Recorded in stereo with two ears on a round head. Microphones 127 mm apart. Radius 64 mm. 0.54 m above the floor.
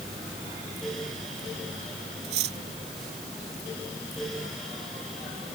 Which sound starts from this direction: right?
Cutlery clinking, at 2.2 s.